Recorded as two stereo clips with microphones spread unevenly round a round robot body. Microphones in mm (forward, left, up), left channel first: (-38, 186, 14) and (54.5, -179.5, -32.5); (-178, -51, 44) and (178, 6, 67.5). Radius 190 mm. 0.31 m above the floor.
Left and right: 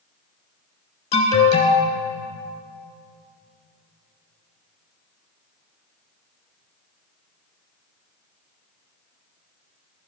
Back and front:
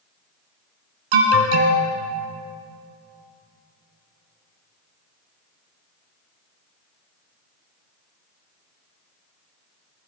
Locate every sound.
1.1 s an alarm: 30° left, 2.5 m